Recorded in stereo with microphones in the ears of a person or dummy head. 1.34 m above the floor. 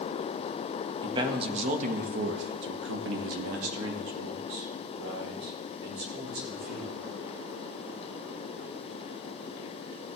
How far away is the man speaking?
About 1.5 m.